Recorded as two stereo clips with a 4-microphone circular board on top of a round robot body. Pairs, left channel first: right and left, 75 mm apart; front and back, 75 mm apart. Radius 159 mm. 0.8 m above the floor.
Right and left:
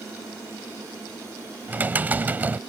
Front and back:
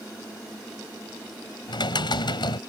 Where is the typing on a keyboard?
20° left.